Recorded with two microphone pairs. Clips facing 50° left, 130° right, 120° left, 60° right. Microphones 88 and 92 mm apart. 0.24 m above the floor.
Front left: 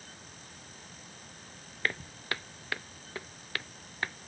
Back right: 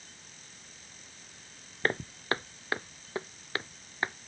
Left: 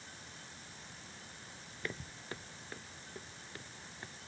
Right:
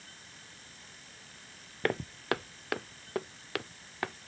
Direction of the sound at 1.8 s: 75° right.